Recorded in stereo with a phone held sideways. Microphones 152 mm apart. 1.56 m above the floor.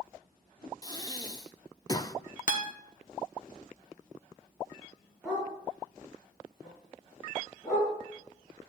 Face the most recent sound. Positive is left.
turn(degrees=0)  # may be behind; listen again after turning